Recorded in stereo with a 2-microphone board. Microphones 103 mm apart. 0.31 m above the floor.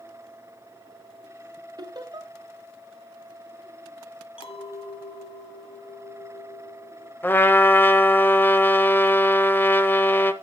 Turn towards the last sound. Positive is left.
turn(degrees=20)  # may be behind; listen again after turning